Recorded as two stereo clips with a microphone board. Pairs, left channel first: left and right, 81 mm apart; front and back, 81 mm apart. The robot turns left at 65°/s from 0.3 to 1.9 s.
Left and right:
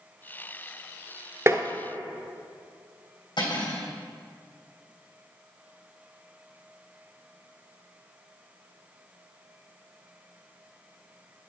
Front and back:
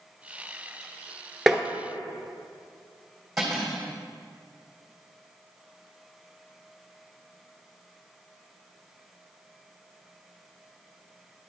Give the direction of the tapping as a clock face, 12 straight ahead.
3 o'clock.